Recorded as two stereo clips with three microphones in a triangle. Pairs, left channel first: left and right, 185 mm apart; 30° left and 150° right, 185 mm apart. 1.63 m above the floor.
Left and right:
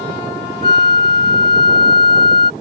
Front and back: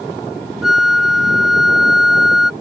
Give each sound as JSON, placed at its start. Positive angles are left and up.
{"t": 0.6, "sound": "a flute", "azimuth_deg": -60}